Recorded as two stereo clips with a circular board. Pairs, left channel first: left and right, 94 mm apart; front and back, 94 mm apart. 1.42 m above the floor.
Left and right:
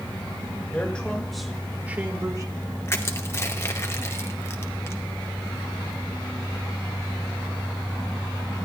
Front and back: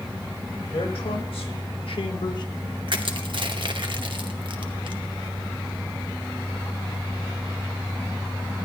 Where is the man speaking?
15° left, 2 m; by 2.8 s 55° right, 1.3 m.